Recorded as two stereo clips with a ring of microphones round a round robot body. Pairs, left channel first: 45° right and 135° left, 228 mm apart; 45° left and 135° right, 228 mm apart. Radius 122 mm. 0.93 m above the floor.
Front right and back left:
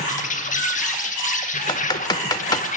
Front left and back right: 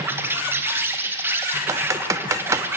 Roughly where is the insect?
Ahead right.